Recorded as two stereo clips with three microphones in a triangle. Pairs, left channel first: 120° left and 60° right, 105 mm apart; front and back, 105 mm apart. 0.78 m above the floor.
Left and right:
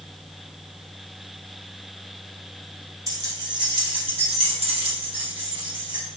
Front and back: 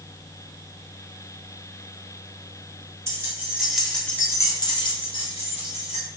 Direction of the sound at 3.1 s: 115° right.